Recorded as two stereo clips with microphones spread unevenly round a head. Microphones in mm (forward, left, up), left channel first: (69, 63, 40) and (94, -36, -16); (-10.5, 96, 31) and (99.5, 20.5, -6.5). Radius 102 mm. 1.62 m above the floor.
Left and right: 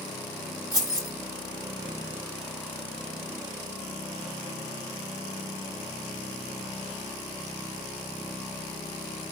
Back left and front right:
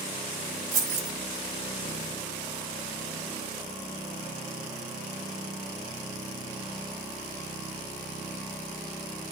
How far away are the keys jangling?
About 1.6 m.